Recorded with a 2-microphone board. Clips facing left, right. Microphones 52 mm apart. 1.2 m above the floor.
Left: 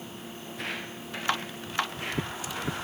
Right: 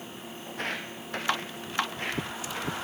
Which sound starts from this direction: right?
Footsteps, at 0.5 s.